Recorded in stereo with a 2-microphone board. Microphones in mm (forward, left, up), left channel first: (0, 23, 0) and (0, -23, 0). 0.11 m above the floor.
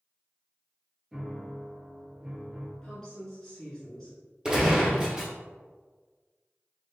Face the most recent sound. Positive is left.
turn(degrees=-20)  # may be behind; listen again after turning